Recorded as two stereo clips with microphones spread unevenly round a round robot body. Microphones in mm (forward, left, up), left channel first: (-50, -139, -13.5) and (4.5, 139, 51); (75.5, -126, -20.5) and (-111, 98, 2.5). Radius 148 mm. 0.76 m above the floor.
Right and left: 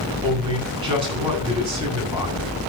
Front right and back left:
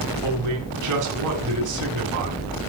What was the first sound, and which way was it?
A man speaking, 150° left.